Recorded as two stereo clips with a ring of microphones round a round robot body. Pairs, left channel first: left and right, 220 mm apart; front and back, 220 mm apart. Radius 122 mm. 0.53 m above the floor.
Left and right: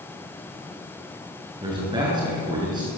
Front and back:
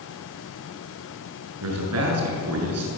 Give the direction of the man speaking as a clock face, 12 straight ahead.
5 o'clock.